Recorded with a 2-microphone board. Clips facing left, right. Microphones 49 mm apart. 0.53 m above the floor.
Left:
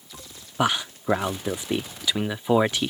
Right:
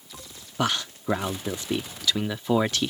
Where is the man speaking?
20° left (ahead or behind).